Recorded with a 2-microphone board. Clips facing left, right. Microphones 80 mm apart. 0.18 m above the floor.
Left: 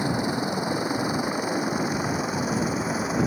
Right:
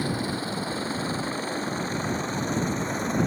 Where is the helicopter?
15° left (ahead or behind); by 3.3 s 5° left (ahead or behind).